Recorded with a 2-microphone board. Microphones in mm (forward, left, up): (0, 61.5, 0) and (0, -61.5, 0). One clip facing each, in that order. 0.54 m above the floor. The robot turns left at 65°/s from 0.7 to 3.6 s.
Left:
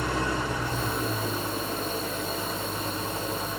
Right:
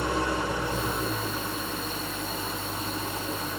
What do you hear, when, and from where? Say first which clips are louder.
0.0 s an engine running: right 1 dB; 155° right, 2 m; by 3.6 s 15° left, 2 m